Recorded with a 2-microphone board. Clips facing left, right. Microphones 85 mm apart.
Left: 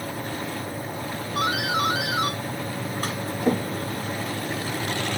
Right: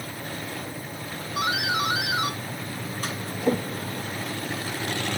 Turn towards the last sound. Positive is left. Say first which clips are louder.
# left 1 dB
turn(degrees=50)  # may be behind; listen again after turning